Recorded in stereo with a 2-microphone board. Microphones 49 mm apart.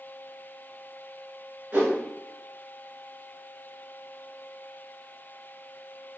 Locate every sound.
1.7 s a whoosh: 40° right (ahead or behind), 1.7 m